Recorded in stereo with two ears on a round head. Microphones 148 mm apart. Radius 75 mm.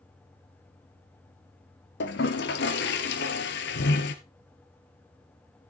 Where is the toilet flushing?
75° left (ahead or behind), 1.4 m.